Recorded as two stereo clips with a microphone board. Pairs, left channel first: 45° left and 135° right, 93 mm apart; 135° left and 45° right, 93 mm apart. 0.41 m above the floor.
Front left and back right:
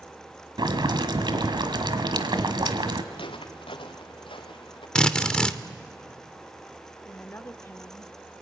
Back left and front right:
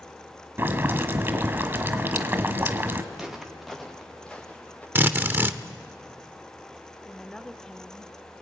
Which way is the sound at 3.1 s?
35° left.